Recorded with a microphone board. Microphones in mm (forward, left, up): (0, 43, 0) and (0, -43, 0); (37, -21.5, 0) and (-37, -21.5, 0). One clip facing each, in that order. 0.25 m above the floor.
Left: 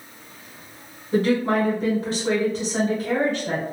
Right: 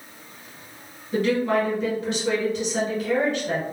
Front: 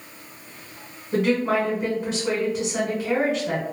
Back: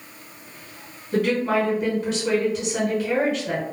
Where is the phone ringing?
I don't hear a phone ringing.